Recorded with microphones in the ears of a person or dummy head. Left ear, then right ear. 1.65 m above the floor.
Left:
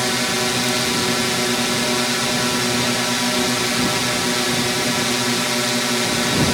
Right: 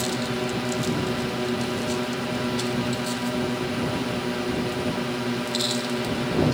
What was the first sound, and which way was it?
A drone, 70° left (ahead or behind).